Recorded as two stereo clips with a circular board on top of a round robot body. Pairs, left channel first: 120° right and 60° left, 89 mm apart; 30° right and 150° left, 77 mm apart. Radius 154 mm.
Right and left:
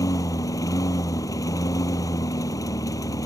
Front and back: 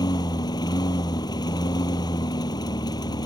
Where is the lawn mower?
65° right.